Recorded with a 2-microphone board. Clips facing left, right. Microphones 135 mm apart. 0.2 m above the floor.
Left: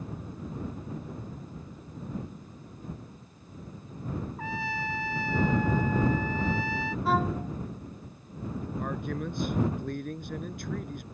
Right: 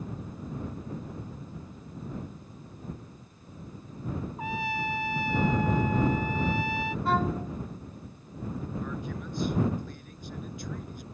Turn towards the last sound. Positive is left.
turn(degrees=60)  # may be behind; listen again after turning